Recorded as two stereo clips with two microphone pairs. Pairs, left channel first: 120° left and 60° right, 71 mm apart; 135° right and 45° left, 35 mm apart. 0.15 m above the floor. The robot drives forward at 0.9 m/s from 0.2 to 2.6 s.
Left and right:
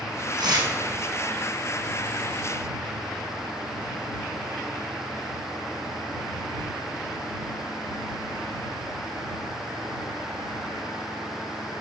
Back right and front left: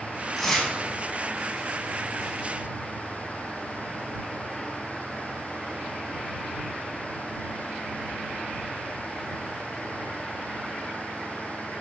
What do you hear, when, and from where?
0.4 s tearing paper: 55° right, 5.5 m